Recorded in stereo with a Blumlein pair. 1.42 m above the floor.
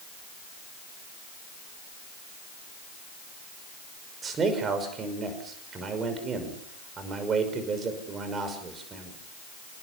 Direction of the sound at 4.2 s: 20° right.